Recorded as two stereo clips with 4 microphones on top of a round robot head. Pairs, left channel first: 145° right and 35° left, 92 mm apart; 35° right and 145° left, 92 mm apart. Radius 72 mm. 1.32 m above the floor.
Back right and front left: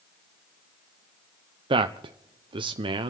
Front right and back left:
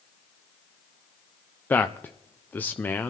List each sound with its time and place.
1.7 s a man speaking: 30° left, 0.5 m